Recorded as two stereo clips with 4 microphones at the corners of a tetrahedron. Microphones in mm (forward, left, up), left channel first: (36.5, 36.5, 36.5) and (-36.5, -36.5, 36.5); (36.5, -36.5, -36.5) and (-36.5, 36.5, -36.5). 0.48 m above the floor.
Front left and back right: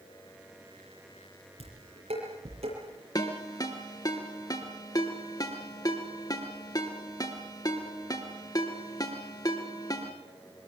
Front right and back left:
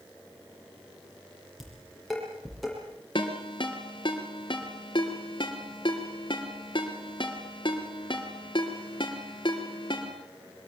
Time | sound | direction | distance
1.6 | dishes clattering | 135° right | 9 m
3.1 | a ringtone | 5° right | 4 m